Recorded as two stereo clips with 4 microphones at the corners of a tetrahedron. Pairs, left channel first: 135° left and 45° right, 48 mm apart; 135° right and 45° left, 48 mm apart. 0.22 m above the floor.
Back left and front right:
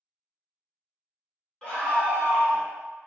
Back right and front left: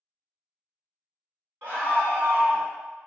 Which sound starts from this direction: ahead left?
A scream, at 1.6 s.